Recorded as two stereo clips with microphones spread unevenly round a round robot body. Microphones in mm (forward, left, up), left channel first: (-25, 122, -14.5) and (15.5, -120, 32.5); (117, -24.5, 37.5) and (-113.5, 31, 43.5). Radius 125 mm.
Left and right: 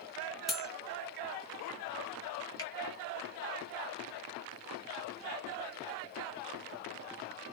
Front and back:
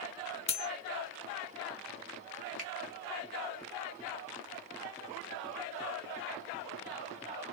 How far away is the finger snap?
About 1.1 m.